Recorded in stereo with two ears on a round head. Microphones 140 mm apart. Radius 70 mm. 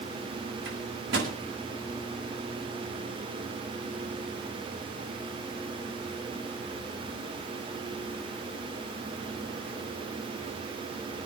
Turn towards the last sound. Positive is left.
turn(degrees=-85)